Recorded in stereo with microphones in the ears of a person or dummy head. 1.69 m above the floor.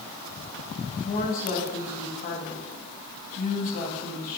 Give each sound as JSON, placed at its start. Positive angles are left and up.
{"t": 1.0, "sound": "a woman speaking", "side_deg": 50, "distance_m": 0.7}